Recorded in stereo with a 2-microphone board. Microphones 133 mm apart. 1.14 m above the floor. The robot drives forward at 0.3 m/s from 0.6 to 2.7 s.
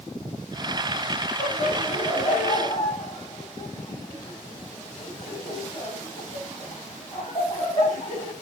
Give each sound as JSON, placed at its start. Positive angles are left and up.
{"t": 1.4, "sound": "laughter", "side_deg": 35, "distance_m": 8.0}